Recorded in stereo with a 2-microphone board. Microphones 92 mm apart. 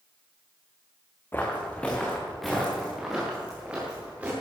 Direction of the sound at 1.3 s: 25° left (ahead or behind).